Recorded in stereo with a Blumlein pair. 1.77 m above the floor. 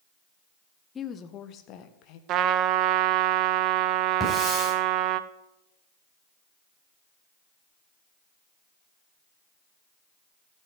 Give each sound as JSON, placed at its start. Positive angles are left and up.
{"t": 0.9, "sound": "a woman speaking", "azimuth_deg": 20, "distance_m": 1.0}
{"t": 2.3, "sound": "a trumpet", "azimuth_deg": -35, "distance_m": 0.6}
{"t": 4.2, "sound": "a hiss", "azimuth_deg": 10, "distance_m": 9.0}